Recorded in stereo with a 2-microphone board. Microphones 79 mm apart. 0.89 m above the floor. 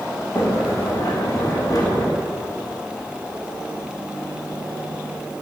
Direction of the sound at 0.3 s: 50° left (ahead or behind).